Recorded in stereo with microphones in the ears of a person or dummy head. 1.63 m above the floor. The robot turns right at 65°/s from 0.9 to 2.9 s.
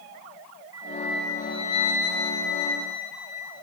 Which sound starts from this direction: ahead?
A flute, at 0.7 s.